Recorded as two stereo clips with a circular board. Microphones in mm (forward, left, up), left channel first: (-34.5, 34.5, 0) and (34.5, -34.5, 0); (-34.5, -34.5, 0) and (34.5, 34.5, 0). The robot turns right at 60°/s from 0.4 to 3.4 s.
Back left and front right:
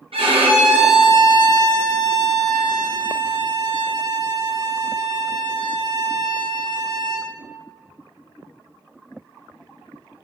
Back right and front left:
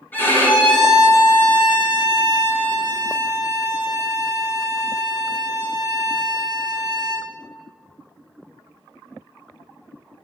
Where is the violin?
65° right, 3 m; by 7.3 s 115° left, 3 m.